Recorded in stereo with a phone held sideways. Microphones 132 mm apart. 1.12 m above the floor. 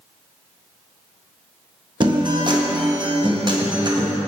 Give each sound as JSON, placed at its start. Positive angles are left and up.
{"t": 2.0, "sound": "a guitar", "side_deg": -35, "distance_m": 1.0}